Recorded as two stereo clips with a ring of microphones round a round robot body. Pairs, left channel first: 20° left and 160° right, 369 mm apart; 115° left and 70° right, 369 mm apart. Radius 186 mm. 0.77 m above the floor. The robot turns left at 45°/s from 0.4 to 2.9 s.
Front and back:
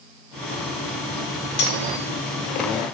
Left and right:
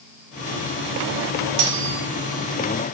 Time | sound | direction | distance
1.6 | cutlery clinking | 40° right | 1.6 m